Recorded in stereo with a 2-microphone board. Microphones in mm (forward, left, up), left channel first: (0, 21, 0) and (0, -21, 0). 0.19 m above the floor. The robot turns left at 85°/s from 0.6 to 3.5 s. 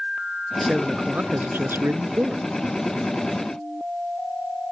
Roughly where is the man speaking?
Ahead.